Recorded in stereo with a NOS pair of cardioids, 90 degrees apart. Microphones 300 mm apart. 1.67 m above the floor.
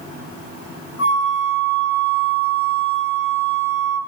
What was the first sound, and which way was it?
A flute, 50° left.